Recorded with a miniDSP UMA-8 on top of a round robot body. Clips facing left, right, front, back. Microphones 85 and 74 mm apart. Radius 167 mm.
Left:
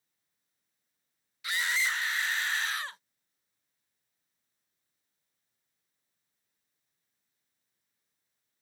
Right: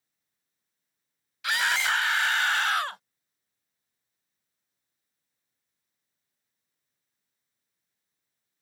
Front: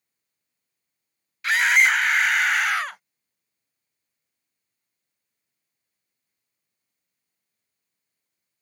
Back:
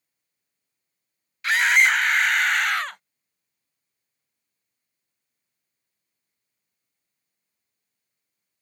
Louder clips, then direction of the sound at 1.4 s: Right 5 dB, even; 90° right.